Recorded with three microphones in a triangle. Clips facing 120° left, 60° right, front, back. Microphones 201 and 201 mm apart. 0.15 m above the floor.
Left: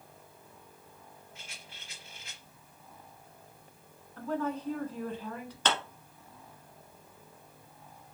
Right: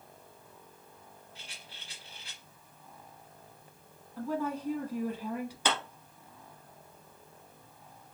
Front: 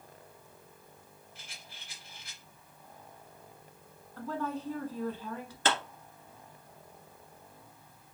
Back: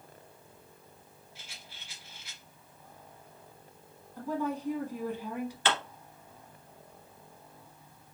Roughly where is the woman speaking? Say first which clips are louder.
Even, back 3 dB; behind right.